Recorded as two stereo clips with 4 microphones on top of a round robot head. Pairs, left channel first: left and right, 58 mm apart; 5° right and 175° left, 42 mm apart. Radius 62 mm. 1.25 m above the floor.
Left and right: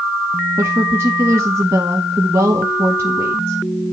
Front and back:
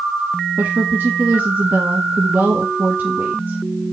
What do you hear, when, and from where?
0.6 s a woman speaking: 130° right, 1.0 m